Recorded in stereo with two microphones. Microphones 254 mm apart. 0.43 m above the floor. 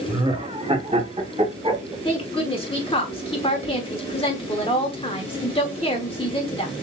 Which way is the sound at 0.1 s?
15° right (ahead or behind).